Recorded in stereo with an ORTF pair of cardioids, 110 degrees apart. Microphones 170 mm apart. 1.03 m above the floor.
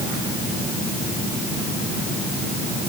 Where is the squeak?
I don't hear a squeak.